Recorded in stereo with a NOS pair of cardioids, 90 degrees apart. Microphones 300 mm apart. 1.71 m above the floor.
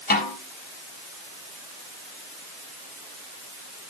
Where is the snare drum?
30° left, 4 m.